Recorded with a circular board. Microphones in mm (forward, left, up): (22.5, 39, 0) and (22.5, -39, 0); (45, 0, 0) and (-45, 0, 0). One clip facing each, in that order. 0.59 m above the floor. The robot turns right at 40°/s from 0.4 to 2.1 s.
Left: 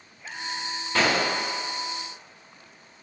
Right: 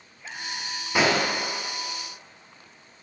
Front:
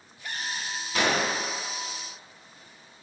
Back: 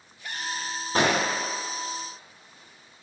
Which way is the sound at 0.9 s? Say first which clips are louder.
Right 1 dB, back 2 dB; 160° right.